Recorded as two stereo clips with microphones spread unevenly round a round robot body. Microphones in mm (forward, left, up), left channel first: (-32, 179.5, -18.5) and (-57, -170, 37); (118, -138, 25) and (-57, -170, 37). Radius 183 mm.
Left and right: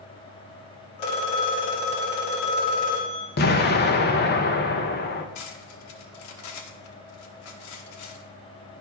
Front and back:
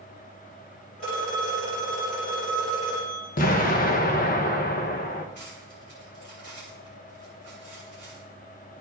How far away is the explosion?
About 0.7 m.